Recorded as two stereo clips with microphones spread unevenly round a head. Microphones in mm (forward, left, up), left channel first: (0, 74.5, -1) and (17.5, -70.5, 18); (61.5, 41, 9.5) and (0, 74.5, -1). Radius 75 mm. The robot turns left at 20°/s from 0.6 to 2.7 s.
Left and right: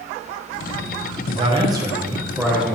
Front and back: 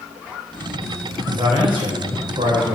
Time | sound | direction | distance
1.3 | a man speaking | 140° right | 1.7 m